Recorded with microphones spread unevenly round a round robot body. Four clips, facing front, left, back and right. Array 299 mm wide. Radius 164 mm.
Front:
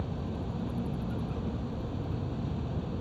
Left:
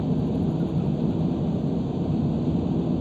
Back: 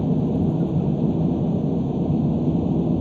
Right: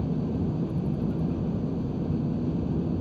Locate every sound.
0.0 s an engine running: 165° left